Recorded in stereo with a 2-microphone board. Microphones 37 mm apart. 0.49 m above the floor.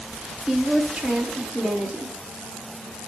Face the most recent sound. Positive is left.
turn(degrees=-25)  # may be behind; listen again after turning